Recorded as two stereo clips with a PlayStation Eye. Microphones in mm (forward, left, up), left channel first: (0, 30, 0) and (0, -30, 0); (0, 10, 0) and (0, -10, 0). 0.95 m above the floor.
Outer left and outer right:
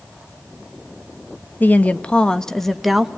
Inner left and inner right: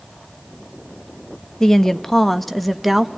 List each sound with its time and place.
1.6 s a woman speaking: 30° left (ahead or behind), 1.1 m; by 3.1 s 5° right (ahead or behind), 1.3 m